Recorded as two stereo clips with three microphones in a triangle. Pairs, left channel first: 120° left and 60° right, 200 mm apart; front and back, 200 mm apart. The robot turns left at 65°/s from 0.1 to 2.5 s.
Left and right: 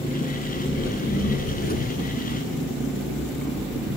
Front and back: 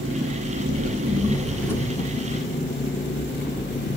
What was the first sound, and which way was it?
An engine running, 175° right.